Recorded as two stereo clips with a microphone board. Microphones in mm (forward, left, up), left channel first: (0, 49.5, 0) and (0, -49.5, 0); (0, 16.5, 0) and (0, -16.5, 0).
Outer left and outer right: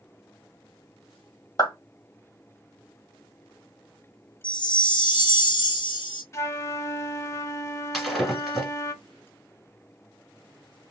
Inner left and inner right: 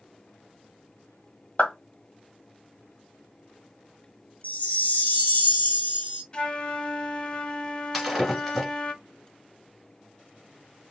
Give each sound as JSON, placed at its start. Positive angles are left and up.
{"t": 1.6, "sound": "a clap", "side_deg": 45, "distance_m": 1.4}
{"t": 4.4, "sound": "a chime", "side_deg": 60, "distance_m": 2.0}
{"t": 6.3, "sound": "a flute", "side_deg": 30, "distance_m": 0.5}
{"t": 7.9, "sound": "breaking glass", "side_deg": 0, "distance_m": 1.9}